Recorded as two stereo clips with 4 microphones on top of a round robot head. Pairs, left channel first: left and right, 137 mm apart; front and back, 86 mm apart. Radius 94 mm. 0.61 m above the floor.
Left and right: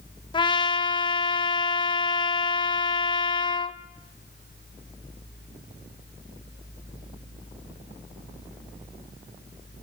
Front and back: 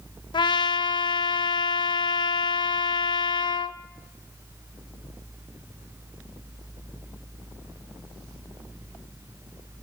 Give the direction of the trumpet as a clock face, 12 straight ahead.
11 o'clock.